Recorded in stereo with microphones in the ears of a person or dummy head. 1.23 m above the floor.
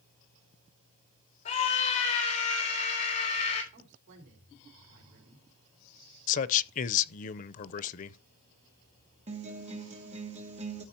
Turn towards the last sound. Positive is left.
turn(degrees=-35)  # may be behind; listen again after turning